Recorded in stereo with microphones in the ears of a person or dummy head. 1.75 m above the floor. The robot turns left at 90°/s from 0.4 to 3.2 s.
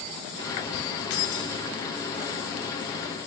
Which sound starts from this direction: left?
Keys jangling, at 1.1 s.